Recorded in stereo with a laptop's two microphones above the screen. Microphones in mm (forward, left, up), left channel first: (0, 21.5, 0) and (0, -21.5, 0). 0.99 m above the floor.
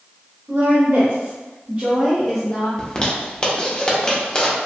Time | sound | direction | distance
0.5 | a woman speaking | 70° right (ahead or behind) | 1.3 m
2.8 | a zipper | 15° left (ahead or behind) | 0.6 m